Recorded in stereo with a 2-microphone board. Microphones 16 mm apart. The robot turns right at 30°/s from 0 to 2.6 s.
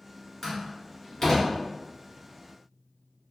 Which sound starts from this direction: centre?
A door slam, at 0.4 s.